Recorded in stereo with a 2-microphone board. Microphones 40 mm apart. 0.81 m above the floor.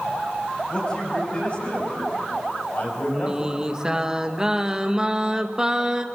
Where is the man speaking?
30° left (ahead or behind), 7.5 m; by 3.6 s 60° left (ahead or behind), 5.5 m.